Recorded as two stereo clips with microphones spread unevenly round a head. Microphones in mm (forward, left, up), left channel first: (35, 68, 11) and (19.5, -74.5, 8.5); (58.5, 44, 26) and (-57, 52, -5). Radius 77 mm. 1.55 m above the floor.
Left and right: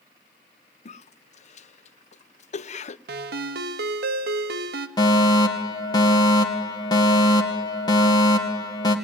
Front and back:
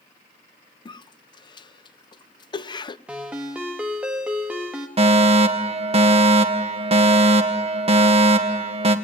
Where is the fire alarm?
150° left, 2 m.